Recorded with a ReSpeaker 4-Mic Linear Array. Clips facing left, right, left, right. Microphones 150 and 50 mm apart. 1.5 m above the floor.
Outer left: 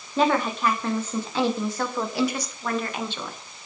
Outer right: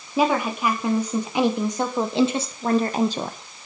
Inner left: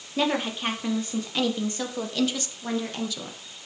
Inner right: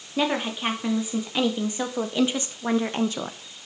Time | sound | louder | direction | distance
0.2 | a woman speaking | outer right 1 dB, inner right 1 dB | 10° right (ahead or behind) | 3 m